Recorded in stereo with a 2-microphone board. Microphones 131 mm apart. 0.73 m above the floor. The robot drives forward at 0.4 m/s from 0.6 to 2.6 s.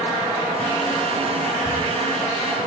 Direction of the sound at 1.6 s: 40° left (ahead or behind).